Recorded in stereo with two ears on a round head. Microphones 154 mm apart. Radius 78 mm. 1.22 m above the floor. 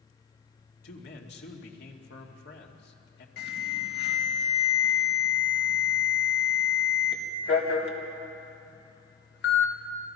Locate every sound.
0.8 s a man speaking: 65° left (ahead or behind), 2.5 m
3.4 s an alarm: 65° left (ahead or behind), 2.5 m